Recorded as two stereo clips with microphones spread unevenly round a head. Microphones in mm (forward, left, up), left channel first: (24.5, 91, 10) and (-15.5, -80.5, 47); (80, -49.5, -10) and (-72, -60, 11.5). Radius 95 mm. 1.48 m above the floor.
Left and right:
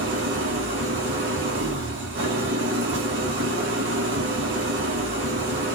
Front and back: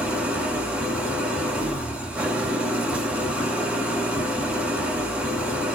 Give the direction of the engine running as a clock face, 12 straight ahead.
3 o'clock.